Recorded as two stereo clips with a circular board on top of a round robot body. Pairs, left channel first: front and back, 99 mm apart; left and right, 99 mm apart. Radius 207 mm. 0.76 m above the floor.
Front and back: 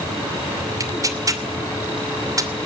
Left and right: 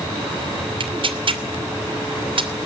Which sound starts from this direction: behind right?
Tearing paper, at 0.8 s.